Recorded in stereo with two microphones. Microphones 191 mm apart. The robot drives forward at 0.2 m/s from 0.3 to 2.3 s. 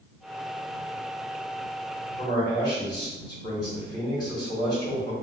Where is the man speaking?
20° left (ahead or behind), 1.2 m.